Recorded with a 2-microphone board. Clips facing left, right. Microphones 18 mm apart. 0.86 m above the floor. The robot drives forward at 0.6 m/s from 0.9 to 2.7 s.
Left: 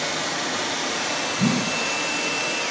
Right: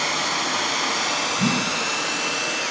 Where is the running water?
50° right (ahead or behind), 1.4 m; by 2.7 s 30° right (ahead or behind), 2 m.